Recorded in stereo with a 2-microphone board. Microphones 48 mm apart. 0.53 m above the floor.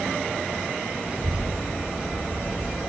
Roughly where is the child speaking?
Right.